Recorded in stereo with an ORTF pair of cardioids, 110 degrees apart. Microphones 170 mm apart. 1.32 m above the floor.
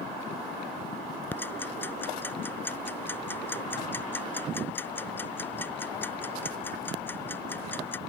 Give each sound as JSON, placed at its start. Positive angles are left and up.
{"t": 1.3, "sound": "ticking", "azimuth_deg": 10}